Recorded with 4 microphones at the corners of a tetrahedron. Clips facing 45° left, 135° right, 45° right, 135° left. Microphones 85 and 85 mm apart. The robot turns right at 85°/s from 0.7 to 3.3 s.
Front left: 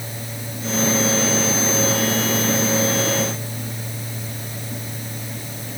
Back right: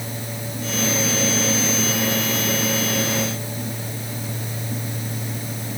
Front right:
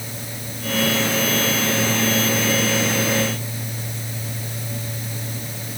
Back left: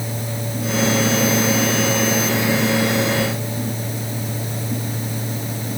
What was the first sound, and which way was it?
Only background noise.